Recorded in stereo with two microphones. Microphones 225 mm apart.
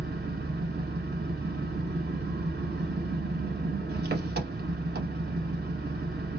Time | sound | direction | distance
0.0 | an engine running | 45° right (ahead or behind) | 1.0 m